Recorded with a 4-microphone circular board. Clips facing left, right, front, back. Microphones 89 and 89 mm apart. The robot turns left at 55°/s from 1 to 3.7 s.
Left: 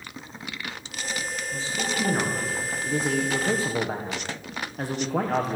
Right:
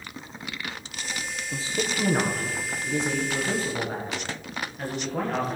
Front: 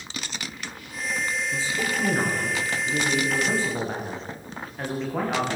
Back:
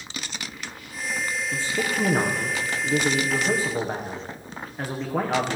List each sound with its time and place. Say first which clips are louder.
1.5 s a man speaking: right 1 dB, back 1 dB; 140° right, 10 m; by 5.6 s 100° left, 10 m